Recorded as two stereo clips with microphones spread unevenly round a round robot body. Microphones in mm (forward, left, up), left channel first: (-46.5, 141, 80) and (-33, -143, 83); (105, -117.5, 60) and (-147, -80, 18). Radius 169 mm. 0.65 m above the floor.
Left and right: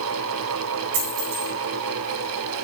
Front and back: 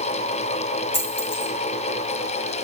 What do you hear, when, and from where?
0.9 s a dropped coin: 75° right, 3 m